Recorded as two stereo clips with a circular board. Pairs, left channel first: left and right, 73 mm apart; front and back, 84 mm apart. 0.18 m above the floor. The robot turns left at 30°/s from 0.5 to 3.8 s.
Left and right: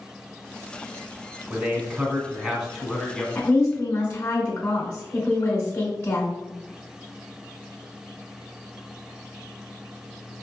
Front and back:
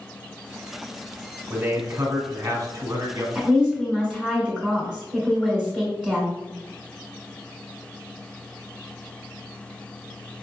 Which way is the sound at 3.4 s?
120° left.